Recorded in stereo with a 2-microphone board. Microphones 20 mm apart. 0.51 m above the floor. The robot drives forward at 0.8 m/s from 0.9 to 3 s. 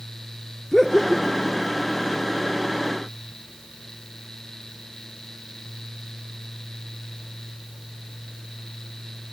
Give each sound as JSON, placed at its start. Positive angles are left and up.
{"t": 0.7, "sound": "laughter", "side_deg": 35, "distance_m": 1.1}